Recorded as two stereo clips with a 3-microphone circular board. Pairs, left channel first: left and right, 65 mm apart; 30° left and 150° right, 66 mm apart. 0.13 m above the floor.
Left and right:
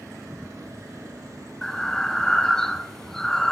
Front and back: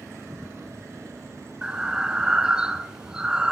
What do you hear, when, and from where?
1.6 s breathing: 160° left, 1.0 m